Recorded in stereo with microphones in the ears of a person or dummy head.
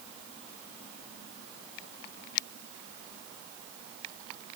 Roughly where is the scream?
I don't hear a scream.